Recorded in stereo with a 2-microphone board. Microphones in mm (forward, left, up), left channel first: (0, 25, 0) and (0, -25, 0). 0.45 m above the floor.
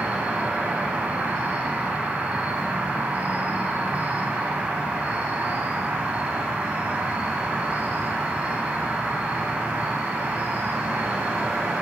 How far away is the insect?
About 0.8 m.